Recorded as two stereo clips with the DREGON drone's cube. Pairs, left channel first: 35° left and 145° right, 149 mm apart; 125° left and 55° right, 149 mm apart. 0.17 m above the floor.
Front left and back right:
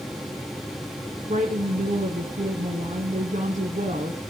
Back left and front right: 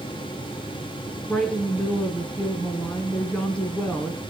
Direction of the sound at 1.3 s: 155° right.